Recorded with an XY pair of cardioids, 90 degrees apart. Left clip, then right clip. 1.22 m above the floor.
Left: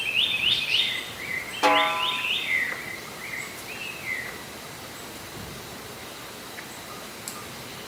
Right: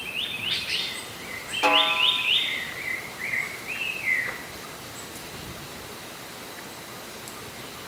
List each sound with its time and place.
1.6 s a snare drum: 20° left